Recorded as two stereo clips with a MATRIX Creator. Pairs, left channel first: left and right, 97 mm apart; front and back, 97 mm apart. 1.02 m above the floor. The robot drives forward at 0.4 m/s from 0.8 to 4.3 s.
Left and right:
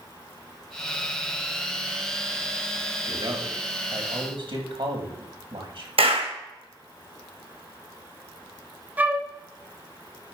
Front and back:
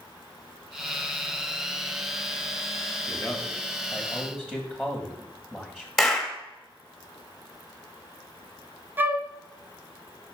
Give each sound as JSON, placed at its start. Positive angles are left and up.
{"t": 3.1, "sound": "a man speaking", "azimuth_deg": -75, "distance_m": 1.4}
{"t": 6.0, "sound": "a clap", "azimuth_deg": -90, "distance_m": 1.0}
{"t": 9.0, "sound": "a flute", "azimuth_deg": -140, "distance_m": 0.5}